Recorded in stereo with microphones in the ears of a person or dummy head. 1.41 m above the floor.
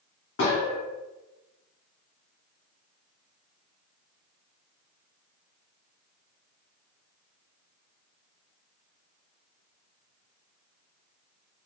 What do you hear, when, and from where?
0.4 s a gunshot: 55° left (ahead or behind), 0.8 m